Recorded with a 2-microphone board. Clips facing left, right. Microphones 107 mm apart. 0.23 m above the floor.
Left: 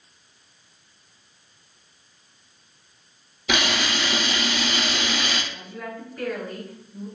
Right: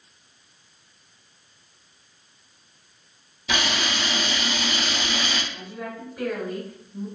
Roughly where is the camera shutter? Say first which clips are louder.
Left 2 dB; left.